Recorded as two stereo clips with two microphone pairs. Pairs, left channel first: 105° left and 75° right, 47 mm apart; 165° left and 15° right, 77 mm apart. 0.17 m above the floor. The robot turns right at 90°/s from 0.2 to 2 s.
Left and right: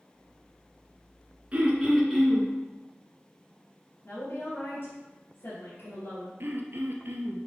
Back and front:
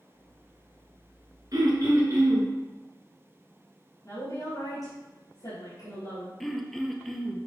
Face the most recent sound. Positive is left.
turn(degrees=-110)